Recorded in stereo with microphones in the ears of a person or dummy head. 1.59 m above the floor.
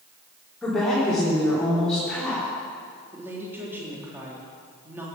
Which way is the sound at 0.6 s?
Centre (ahead or behind).